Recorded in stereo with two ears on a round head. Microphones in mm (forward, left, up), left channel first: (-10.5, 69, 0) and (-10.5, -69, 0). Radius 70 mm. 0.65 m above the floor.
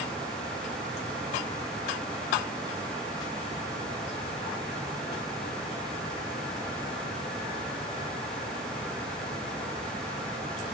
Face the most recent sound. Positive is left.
No sound to turn to.